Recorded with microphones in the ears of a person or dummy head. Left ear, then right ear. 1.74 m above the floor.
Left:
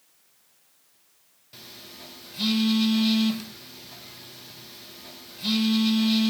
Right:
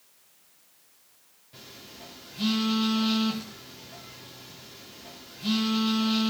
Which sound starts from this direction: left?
A phone buzzing, at 1.5 s.